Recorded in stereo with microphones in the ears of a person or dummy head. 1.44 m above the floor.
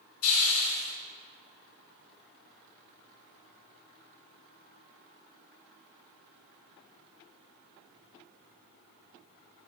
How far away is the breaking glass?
No breaking glass in this recording.